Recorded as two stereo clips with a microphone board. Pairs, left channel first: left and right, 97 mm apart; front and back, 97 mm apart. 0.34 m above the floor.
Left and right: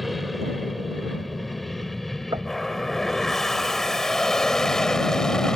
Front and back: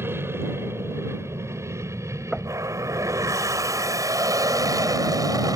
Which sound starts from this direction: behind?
An aircraft, at 0.0 s.